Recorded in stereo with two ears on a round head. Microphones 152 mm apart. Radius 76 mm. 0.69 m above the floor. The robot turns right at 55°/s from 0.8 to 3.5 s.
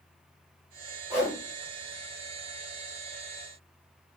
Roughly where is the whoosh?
Centre.